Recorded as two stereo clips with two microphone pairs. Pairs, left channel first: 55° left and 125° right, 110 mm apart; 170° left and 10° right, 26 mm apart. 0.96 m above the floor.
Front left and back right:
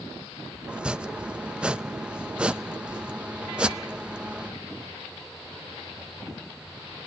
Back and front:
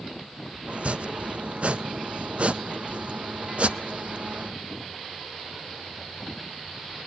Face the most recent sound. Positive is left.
turn(degrees=-50)